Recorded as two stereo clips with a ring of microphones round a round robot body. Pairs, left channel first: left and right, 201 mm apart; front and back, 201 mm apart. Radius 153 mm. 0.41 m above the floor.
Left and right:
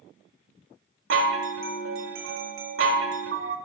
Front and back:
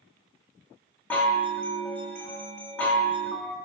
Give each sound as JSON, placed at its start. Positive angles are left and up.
{"t": 1.1, "sound": "a chime", "azimuth_deg": -85, "distance_m": 1.2}